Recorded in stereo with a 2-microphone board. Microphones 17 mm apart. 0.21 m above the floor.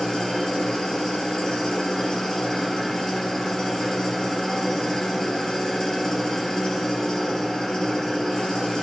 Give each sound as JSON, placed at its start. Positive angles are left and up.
{"t": 0.0, "sound": "an engine running", "side_deg": 50, "distance_m": 3.5}